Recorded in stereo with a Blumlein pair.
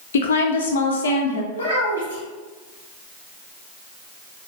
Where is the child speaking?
70° left, 1.0 m.